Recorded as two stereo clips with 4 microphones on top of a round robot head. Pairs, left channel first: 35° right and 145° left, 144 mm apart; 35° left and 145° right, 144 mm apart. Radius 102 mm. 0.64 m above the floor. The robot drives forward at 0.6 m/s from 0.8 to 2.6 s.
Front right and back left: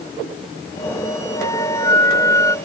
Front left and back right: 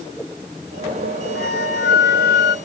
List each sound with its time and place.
1.4 s a flute: 35° left